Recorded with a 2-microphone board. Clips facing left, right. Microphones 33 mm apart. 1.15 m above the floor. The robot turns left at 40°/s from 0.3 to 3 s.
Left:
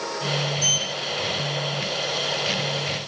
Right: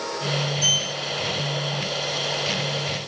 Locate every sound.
0.6 s a sliding door: 10° right (ahead or behind), 1.2 m; by 1.8 s 50° right (ahead or behind), 1.2 m